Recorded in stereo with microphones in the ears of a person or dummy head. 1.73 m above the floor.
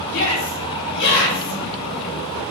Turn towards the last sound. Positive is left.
turn(degrees=70)  # may be behind; listen again after turning